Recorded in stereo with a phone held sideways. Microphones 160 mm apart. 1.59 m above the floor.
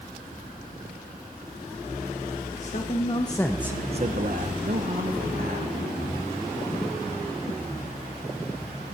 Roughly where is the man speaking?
Left.